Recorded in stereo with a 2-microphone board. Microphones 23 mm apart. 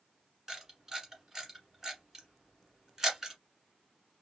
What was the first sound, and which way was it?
A camera shutter, 20° right (ahead or behind).